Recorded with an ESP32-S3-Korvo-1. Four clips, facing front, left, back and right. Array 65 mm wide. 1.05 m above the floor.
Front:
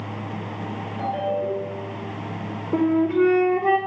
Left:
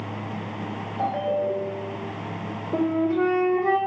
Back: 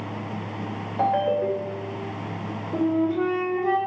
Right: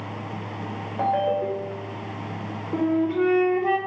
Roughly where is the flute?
Ahead.